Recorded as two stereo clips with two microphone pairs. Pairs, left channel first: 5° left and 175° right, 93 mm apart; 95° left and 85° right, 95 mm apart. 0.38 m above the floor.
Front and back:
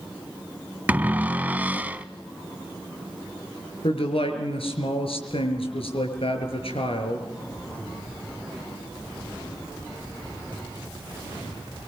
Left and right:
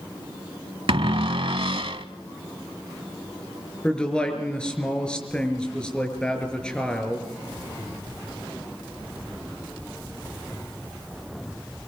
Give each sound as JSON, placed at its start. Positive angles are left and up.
{"t": 0.9, "sound": "a cupboard door", "azimuth_deg": -100, "distance_m": 0.9}
{"t": 3.8, "sound": "a man speaking", "azimuth_deg": 15, "distance_m": 5.5}